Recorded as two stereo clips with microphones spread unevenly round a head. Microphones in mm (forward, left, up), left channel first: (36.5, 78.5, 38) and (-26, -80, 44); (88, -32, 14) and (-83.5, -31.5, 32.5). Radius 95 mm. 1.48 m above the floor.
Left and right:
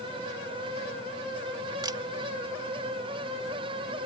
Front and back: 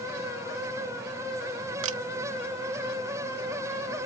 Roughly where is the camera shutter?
Behind.